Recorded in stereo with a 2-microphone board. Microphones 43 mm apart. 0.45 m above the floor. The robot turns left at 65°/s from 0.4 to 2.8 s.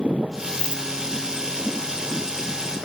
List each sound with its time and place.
0.6 s a dropped coin: 20° left (ahead or behind), 1.5 m; by 0.8 s 5° left (ahead or behind), 1.5 m